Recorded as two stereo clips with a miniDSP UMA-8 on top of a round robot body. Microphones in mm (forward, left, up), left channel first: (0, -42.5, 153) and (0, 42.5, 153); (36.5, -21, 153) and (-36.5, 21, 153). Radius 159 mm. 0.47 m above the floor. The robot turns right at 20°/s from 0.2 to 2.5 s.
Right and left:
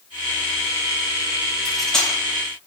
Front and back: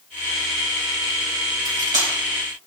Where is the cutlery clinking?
Straight behind, 2 m; by 2.1 s 170° right, 2 m.